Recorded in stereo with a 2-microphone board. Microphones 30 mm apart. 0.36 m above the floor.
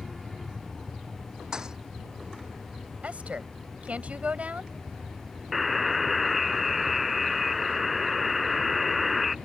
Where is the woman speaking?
55° right (ahead or behind).